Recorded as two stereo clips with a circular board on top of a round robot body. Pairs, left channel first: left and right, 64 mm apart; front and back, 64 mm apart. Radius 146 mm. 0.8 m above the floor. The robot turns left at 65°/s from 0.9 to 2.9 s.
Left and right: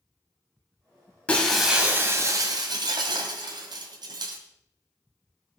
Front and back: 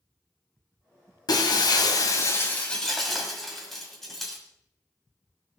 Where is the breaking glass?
20° left, 1.8 m; by 4.4 s 85° right, 1.8 m.